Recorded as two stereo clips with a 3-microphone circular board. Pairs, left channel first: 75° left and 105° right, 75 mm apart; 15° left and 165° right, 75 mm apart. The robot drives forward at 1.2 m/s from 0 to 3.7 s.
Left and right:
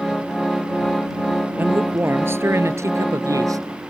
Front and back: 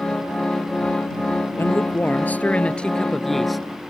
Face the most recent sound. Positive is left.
turn(degrees=-80)